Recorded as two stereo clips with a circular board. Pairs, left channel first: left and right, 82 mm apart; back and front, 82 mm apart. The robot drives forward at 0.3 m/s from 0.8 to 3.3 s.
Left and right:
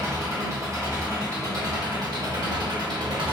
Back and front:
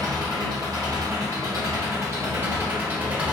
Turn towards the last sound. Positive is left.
turn(degrees=-75)